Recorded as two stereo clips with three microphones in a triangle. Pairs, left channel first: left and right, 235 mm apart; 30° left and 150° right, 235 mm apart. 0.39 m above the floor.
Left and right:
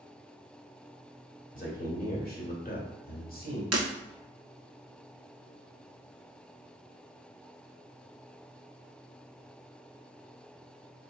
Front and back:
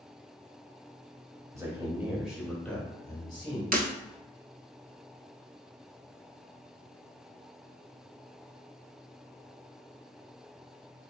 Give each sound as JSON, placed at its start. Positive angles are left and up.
{"t": 1.5, "sound": "a man speaking", "azimuth_deg": 135, "distance_m": 1.7}
{"t": 3.7, "sound": "breaking glass", "azimuth_deg": -95, "distance_m": 0.8}